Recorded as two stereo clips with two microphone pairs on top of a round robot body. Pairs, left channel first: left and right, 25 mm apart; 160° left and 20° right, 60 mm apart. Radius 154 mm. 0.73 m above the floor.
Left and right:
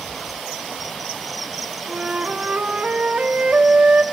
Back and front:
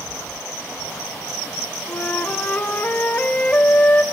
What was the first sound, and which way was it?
A flute, 135° right.